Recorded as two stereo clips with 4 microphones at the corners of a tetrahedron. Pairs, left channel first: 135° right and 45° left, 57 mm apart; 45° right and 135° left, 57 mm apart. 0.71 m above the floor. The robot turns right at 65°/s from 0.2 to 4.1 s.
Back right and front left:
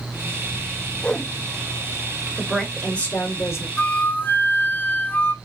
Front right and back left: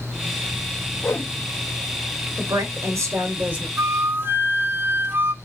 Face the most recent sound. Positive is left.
turn(degrees=180)